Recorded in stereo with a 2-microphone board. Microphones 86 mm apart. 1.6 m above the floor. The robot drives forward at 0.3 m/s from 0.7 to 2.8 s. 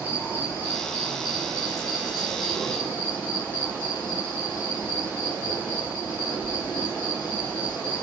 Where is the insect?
45° left (ahead or behind), 1.6 m; by 8.0 s 55° left (ahead or behind), 1.3 m.